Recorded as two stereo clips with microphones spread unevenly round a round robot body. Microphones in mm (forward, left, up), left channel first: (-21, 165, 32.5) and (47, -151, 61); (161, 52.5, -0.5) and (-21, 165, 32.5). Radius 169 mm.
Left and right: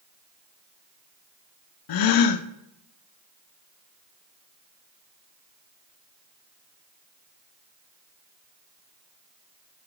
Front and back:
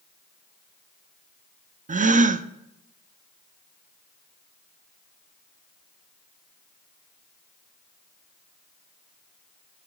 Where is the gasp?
85° left, 0.5 m.